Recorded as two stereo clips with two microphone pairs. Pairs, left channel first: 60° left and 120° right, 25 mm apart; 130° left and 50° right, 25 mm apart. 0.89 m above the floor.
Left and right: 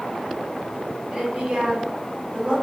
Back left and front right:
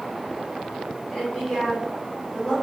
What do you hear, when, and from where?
1.1 s a woman speaking: 175° right, 3 m